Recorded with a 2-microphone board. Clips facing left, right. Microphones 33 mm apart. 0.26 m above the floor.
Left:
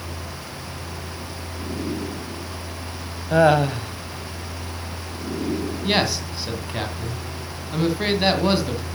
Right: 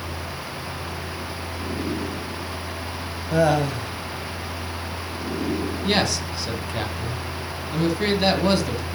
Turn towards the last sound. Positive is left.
turn(degrees=10)  # may be behind; listen again after turning